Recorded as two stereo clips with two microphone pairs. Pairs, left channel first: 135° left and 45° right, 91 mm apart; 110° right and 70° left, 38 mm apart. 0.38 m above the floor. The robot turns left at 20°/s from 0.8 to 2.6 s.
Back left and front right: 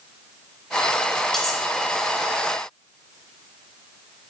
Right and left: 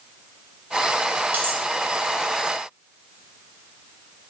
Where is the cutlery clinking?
50° left, 0.8 m; by 1.6 s 45° left, 0.8 m.